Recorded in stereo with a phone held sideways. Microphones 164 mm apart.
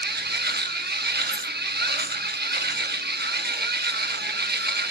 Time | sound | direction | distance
0.0 | a machine running | 80° right | 0.9 m
1.3 | a dropped coin | 70° left (ahead or behind) | 1.0 m